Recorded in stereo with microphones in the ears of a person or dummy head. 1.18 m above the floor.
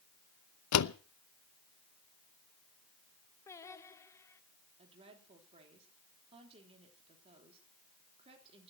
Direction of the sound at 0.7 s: 80° left.